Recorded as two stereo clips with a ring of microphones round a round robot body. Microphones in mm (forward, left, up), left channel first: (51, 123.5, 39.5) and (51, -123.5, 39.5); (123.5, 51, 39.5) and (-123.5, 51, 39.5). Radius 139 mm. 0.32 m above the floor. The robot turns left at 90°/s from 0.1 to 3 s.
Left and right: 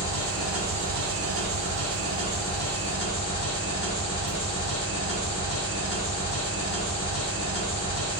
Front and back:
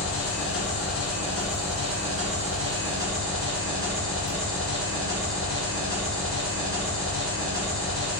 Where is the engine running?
30° left, 1.8 m; by 8.2 s 130° left, 1.8 m.